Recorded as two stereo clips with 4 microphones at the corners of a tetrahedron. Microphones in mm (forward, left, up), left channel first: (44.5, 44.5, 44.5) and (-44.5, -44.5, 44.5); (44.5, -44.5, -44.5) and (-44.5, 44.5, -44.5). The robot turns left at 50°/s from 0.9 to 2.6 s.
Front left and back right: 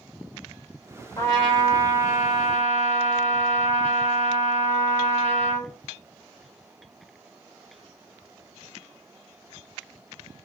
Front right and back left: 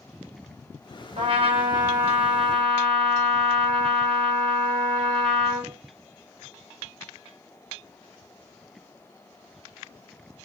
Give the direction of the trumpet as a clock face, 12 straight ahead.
8 o'clock.